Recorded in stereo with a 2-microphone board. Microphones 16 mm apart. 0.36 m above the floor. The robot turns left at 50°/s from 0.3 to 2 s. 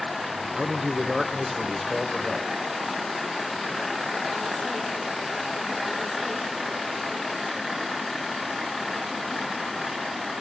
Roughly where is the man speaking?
Right.